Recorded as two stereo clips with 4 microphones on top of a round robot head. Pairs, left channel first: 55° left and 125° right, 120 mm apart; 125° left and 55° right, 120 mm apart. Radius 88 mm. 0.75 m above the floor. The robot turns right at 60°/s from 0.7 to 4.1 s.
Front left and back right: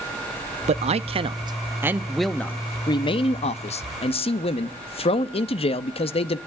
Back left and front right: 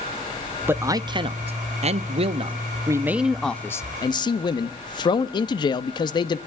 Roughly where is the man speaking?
Behind right.